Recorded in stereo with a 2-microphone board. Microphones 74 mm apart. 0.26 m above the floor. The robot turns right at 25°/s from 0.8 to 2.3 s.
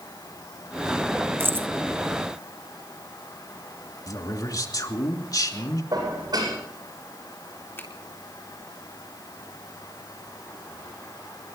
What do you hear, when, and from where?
1.4 s keys jangling: 30° right (ahead or behind), 1.0 m
4.1 s a man speaking: 55° left (ahead or behind), 3 m
5.9 s dishes clattering: 65° right (ahead or behind), 8 m
7.8 s a finger snap: 30° left (ahead or behind), 3.5 m